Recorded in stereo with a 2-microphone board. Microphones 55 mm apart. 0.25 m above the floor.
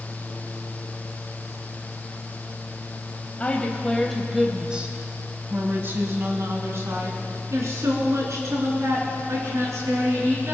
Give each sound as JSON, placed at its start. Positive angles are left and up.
{"t": 3.4, "sound": "a woman speaking", "side_deg": 25, "distance_m": 1.0}